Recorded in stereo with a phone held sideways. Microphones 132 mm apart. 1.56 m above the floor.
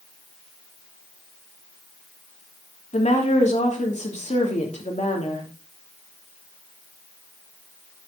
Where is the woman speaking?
60° left (ahead or behind), 3 m.